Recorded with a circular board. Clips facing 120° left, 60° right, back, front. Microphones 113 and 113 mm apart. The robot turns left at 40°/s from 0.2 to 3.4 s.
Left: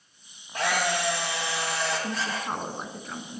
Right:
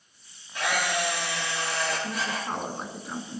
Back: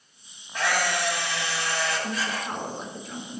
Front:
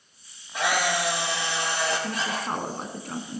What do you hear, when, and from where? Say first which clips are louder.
0.5 s a camera shutter: left 1 dB, front 1 dB; 85° left, 5.5 m; by 2.5 s 10° left, 5.5 m
2.0 s a woman speaking: even, front 1 dB; 60° left, 2 m; by 3.4 s 5° left, 2 m